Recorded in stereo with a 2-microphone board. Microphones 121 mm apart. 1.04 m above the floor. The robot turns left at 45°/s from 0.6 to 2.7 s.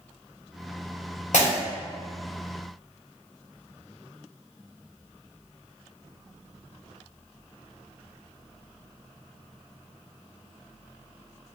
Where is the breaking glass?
75° left (ahead or behind), 1.5 m; by 1.5 s 70° left (ahead or behind), 1.5 m.